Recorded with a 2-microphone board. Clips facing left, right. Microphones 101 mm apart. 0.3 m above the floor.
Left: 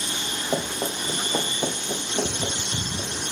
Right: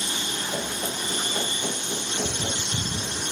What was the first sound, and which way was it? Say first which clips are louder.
Running footsteps: left 6 dB; 80° left.